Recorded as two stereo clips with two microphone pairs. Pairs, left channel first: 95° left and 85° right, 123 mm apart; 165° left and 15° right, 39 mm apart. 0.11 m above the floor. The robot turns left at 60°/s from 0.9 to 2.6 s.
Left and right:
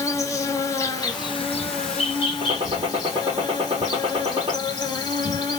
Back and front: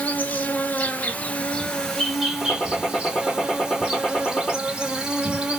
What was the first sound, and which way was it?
An insect, 150° left.